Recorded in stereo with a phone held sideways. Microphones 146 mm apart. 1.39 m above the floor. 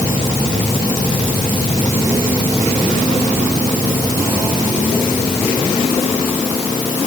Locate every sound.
Only background noise.